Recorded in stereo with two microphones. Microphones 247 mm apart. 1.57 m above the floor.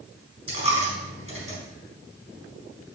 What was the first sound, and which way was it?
A dropped coin, 65° left (ahead or behind).